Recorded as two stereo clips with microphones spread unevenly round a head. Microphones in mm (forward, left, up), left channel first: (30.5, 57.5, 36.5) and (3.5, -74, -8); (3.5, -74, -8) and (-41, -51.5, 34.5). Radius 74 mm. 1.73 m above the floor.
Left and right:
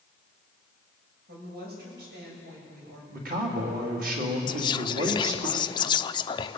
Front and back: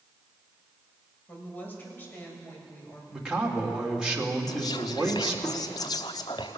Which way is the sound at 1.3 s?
90° right.